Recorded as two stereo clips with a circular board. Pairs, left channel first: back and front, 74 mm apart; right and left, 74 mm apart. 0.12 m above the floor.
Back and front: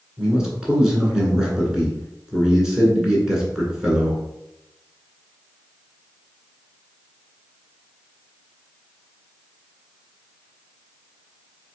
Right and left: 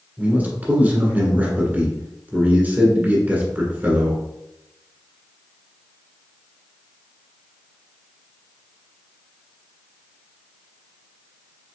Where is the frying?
No frying in this recording.